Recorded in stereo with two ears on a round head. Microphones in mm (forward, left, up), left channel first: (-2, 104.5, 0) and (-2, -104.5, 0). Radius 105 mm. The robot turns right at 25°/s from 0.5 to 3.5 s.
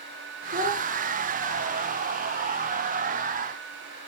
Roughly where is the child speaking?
Right.